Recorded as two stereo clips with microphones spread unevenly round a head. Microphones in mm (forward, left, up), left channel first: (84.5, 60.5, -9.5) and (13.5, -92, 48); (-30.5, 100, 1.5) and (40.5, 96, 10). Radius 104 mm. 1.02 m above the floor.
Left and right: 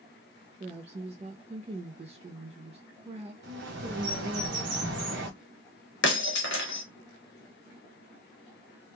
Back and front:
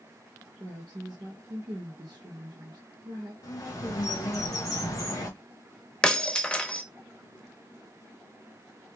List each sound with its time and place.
0.6 s a woman speaking: 50° right, 0.7 m
3.4 s a bird: 155° right, 1.0 m
6.0 s breaking glass: 100° left, 0.9 m